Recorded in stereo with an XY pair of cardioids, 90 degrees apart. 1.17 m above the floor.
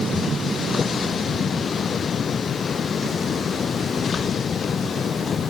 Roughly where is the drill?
I don't hear a drill.